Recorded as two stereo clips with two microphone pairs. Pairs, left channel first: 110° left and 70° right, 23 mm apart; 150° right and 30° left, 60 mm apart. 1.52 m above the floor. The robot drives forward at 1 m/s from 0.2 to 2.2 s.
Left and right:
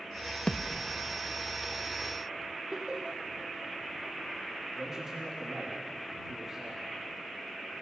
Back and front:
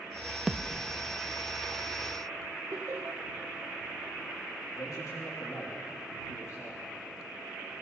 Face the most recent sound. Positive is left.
turn(degrees=-140)